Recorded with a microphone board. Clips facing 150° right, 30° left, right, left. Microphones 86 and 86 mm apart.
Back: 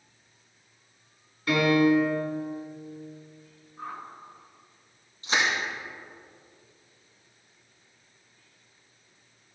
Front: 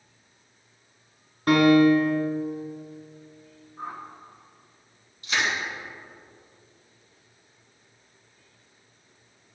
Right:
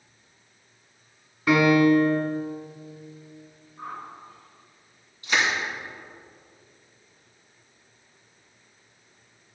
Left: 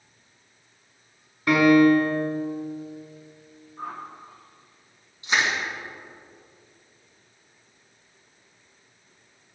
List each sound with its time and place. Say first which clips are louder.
1.5 s a piano: front 5 dB, left 2 dB; 5° left, 1.2 m
3.8 s a whoosh: front 2 dB, left 2 dB; 85° left, 1.1 m
5.2 s crushing: back 1 dB, even; 160° left, 3 m